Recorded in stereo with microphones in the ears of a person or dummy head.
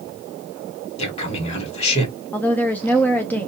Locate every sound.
1.0 s a man speaking: 35° left (ahead or behind), 1.5 m
2.3 s a woman speaking: 15° left (ahead or behind), 0.6 m